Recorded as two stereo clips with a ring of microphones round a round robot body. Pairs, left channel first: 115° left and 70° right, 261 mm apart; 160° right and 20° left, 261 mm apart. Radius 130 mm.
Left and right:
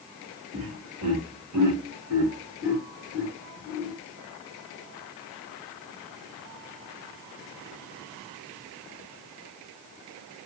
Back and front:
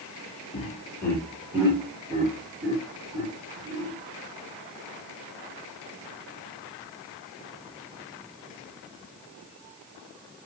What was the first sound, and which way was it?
Laughter, 95° right.